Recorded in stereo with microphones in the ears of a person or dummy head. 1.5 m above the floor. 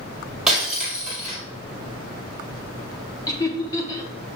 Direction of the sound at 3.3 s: 25° left (ahead or behind).